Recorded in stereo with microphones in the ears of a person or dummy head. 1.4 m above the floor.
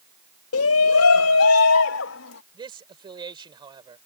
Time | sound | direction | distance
0.5 | a shout | 70° left (ahead or behind) | ?
2.5 | a man speaking | 25° right (ahead or behind) | ?